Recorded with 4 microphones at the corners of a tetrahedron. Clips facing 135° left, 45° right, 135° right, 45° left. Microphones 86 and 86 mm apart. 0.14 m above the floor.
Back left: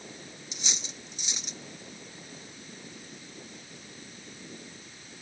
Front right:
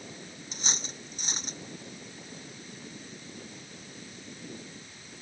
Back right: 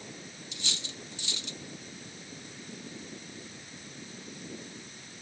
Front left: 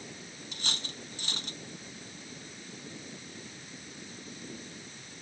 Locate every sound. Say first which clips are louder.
0.5 s cutlery clinking: front right 4 dB, front left 2 dB; 5° left